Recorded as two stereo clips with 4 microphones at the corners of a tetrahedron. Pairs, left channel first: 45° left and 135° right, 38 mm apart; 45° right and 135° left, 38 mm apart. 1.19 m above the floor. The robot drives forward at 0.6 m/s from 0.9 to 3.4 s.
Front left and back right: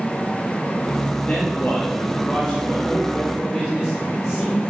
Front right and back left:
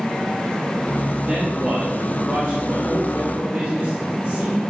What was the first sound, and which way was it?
A man speaking, 110° left.